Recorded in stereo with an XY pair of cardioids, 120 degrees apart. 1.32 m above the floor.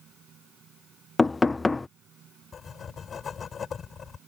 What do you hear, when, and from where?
0.0 s a fan: 50° right
1.2 s knocking: 15° left
2.5 s writing: 40° left